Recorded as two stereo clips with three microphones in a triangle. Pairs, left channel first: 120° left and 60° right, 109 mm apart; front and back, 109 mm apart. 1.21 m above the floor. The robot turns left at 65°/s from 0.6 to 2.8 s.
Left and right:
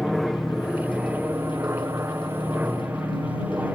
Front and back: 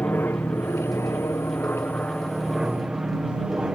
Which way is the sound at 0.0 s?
30° left.